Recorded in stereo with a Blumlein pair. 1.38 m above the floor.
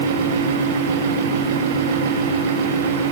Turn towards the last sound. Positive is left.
turn(degrees=-55)